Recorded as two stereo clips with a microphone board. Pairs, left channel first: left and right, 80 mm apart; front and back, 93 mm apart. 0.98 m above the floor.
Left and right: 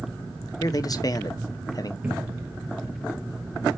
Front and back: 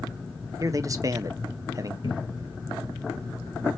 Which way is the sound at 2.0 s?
15° right.